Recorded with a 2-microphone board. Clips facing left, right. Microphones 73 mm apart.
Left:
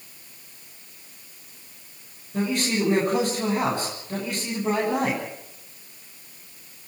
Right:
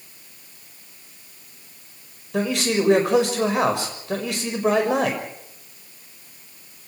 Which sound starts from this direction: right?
A man speaking, at 2.3 s.